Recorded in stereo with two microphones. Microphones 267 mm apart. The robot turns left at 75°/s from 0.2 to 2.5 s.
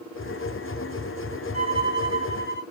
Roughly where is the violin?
Behind left.